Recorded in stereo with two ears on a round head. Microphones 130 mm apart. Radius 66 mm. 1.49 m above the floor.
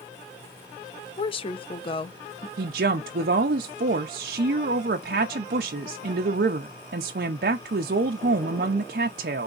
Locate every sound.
1.2 s a woman speaking: 40° left (ahead or behind), 0.7 m
2.6 s a woman speaking: 75° right (ahead or behind), 0.6 m